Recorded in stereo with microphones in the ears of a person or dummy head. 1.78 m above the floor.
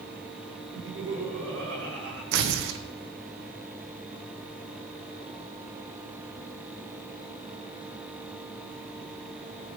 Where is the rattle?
No rattle in this recording.